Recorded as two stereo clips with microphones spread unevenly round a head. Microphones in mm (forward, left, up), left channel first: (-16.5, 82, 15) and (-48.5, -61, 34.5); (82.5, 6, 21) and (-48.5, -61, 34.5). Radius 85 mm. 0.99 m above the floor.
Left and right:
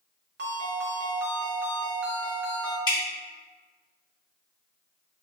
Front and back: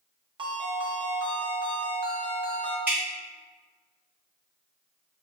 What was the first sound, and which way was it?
A ringtone, 95° right.